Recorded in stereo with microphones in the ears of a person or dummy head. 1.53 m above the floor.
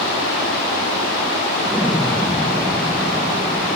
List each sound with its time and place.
1.6 s an explosion: 5° right (ahead or behind), 1.1 m